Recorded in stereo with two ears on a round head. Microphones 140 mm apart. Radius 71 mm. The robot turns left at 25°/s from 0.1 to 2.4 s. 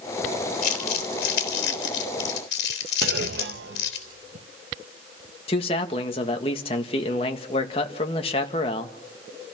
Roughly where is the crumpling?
Left.